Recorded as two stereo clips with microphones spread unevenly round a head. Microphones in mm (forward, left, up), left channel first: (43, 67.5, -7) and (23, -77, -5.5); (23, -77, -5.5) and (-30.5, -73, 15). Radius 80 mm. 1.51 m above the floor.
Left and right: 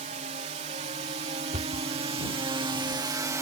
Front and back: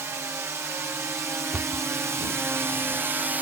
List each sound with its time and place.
0.0 s a drone: 145° right; by 3.4 s 120° right
1.5 s a cupboard door: 140° right